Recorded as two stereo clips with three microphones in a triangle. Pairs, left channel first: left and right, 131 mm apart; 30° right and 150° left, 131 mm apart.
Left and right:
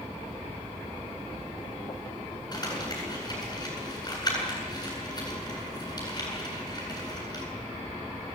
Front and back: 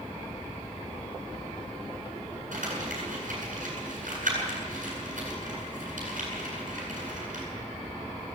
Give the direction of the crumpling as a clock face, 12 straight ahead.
7 o'clock.